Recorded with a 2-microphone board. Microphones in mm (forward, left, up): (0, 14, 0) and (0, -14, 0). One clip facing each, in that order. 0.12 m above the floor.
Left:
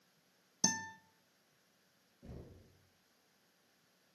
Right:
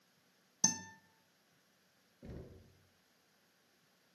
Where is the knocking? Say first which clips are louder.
Right 2 dB; 40° right (ahead or behind), 1.7 m.